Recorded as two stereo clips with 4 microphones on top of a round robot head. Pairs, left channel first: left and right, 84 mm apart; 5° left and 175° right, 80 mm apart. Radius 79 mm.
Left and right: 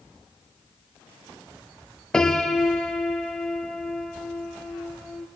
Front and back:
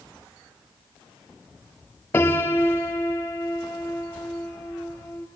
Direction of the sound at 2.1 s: 15° left.